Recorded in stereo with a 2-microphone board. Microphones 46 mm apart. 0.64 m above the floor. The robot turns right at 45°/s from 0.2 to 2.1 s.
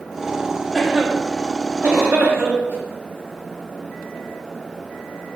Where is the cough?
10° right (ahead or behind), 0.8 m; by 2.8 s 50° right (ahead or behind), 0.8 m.